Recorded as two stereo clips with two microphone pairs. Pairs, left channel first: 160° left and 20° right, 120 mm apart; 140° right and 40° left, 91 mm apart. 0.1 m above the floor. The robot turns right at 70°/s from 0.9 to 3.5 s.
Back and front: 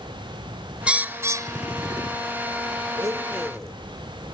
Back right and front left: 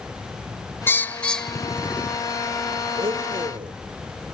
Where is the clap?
I don't hear a clap.